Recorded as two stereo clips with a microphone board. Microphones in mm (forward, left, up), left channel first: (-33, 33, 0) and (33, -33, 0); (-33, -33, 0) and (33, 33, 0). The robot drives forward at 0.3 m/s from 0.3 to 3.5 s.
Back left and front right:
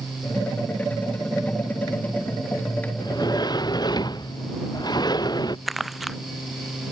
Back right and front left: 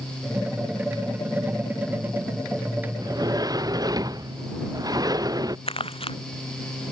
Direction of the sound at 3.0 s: 90° left.